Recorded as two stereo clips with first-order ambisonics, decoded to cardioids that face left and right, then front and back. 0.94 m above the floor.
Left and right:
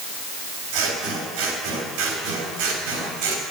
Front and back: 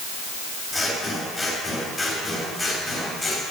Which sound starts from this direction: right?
Scissors, at 0.7 s.